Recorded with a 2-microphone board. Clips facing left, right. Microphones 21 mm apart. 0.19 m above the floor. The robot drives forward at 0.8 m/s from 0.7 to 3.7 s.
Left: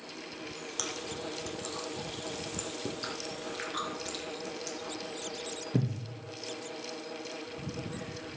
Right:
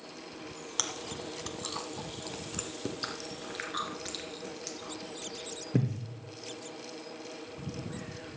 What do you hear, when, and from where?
0.8 s chewing: 25° right (ahead or behind), 1.1 m; by 6.0 s 10° right (ahead or behind), 2.5 m